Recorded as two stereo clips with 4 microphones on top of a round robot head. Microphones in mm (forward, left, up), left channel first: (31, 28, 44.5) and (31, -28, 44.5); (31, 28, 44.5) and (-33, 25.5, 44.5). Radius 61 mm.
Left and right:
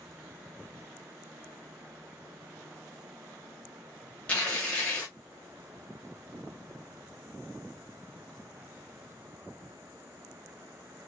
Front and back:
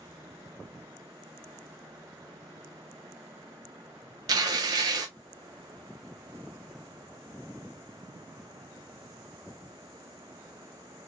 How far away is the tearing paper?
About 0.9 m.